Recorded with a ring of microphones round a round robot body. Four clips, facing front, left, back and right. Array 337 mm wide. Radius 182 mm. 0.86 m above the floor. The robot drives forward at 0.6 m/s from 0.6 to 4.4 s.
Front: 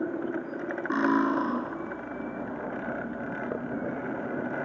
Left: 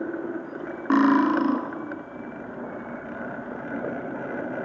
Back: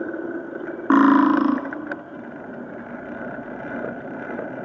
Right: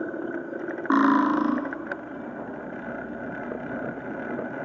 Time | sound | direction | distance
0.9 | cutlery clinking | 170° left | 0.6 m